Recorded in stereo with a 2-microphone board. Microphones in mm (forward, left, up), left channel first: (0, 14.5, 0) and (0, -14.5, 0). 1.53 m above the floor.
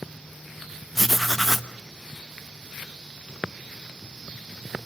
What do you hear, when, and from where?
0.9 s writing: centre (ahead or behind), 0.8 m